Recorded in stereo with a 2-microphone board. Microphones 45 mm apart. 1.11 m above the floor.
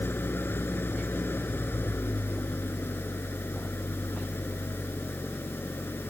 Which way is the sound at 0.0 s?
55° left (ahead or behind).